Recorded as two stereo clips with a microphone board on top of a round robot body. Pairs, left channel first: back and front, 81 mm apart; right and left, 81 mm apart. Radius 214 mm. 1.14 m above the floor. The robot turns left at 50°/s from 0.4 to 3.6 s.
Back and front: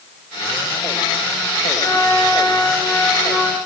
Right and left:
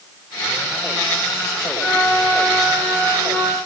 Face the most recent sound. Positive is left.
turn(degrees=115)